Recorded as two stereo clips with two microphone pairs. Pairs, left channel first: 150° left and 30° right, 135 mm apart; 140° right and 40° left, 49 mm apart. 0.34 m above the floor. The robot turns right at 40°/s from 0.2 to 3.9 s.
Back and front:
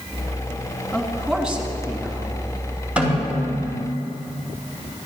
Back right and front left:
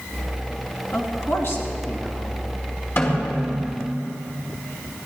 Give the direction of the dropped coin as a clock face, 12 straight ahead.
I don't hear a dropped coin.